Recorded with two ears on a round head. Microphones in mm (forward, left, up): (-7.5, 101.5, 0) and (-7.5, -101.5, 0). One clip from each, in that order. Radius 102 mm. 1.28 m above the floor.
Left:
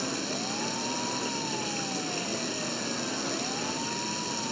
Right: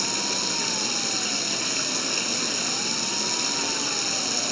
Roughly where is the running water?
Right.